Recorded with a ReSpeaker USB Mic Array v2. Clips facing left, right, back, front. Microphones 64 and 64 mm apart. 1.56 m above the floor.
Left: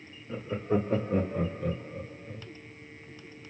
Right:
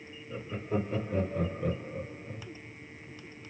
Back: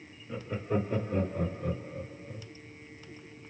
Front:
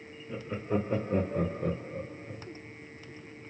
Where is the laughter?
85° left, 1.1 m; by 2.5 s 45° right, 1.1 m.